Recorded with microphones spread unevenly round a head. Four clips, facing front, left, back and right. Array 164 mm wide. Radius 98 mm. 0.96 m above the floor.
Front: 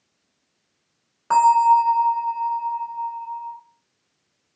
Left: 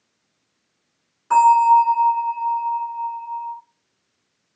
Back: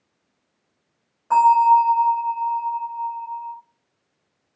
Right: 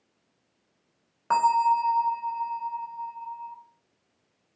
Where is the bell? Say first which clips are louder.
Left 9 dB, back 1 dB; 25° right, 1.4 m.